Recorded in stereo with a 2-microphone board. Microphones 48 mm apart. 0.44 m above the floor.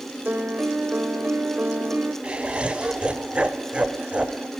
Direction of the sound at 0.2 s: 25° right (ahead or behind).